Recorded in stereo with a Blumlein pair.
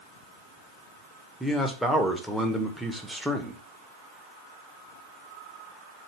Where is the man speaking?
Straight ahead, 0.9 m.